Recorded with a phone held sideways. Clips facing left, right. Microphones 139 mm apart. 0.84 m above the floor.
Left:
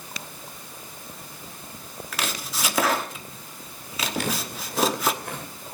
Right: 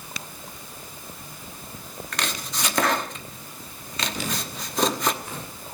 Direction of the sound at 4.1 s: 55° left (ahead or behind).